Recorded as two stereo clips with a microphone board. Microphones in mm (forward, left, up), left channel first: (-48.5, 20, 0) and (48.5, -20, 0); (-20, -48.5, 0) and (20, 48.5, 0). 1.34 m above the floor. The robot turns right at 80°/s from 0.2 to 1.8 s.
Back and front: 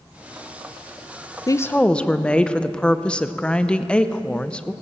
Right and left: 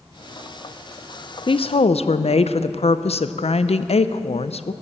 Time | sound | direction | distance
1.5 | a woman speaking | 150° right | 0.5 m